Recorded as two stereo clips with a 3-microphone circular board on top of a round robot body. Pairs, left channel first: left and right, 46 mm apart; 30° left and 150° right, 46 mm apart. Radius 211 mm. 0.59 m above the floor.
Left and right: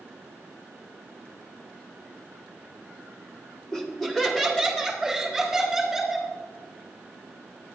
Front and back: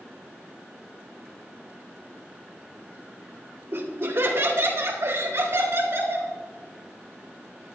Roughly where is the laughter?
Behind.